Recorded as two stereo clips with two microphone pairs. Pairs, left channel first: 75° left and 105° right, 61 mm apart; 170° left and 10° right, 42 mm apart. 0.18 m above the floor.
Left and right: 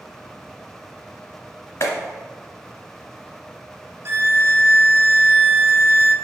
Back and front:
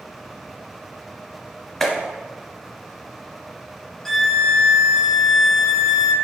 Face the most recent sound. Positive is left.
turn(degrees=-110)